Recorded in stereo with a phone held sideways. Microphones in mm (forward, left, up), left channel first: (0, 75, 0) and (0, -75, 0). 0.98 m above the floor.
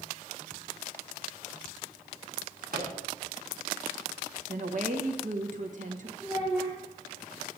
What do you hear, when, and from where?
2.7 s a microwave: 75° right (ahead or behind), 1.8 m
4.5 s a woman speaking: 55° right (ahead or behind), 1.3 m
6.2 s a child speaking: 15° left (ahead or behind), 3.5 m